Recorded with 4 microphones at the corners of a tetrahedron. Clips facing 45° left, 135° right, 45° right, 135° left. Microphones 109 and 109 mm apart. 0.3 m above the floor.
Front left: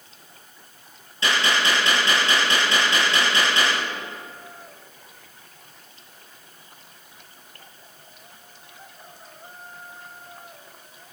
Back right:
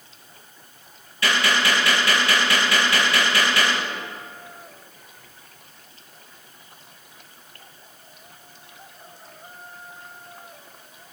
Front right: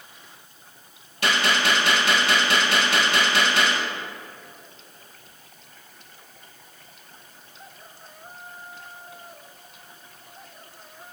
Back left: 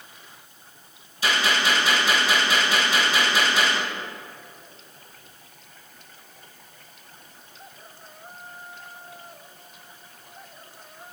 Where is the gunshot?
20° right, 5.5 m.